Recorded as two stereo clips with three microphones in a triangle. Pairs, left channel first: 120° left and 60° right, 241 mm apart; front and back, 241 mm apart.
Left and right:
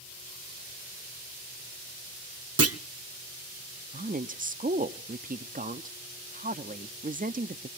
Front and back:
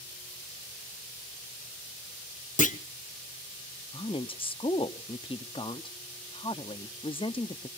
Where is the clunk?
55° right, 0.6 m.